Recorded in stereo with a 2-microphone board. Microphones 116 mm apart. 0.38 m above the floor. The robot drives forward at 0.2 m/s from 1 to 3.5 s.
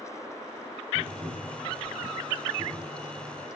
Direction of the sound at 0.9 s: 20° right (ahead or behind).